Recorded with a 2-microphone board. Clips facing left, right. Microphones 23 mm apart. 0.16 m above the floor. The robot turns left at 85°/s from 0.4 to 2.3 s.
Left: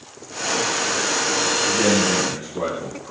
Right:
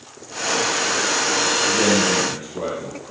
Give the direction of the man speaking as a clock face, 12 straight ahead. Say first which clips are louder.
Even; 4 o'clock.